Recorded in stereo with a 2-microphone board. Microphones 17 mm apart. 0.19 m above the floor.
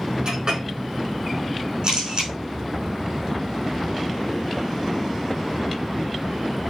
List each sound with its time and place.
0.2 s a clink: 50° right (ahead or behind), 5 m
1.8 s a camera shutter: 55° right (ahead or behind), 4 m